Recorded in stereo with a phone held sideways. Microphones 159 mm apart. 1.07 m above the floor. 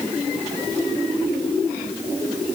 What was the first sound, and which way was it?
Only background noise.